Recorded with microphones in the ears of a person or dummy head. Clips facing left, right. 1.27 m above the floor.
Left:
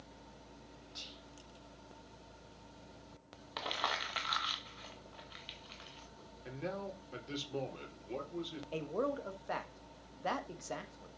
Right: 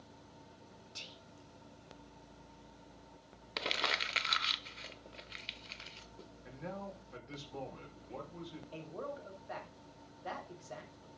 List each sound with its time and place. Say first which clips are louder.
0.9 s whispering: left 1 dB; 30° right (ahead or behind), 1.0 m
3.6 s crumpling: right 1 dB; 30° right (ahead or behind), 0.9 m
6.5 s a man speaking: left 4 dB; 40° left (ahead or behind), 3.5 m
8.7 s a man speaking: left 9 dB; 65° left (ahead or behind), 1.8 m